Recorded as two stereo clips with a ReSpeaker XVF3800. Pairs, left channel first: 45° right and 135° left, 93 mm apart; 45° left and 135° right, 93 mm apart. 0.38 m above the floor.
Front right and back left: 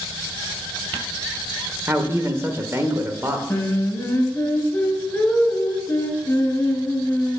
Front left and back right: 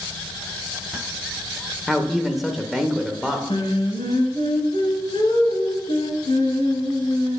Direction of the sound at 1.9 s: 140° left.